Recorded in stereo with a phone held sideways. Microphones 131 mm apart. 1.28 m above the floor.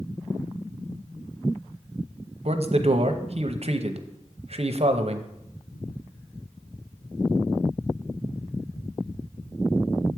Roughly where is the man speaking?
Right.